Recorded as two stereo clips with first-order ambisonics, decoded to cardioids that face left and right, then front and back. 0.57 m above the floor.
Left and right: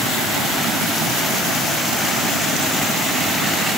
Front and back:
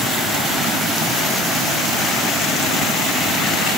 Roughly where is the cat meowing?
I don't hear a cat meowing.